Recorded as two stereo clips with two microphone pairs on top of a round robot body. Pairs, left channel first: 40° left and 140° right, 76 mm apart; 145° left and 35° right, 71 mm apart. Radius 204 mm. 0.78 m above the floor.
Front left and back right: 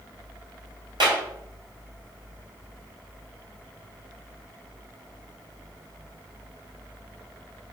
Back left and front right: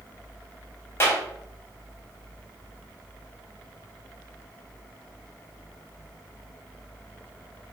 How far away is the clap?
About 4.5 m.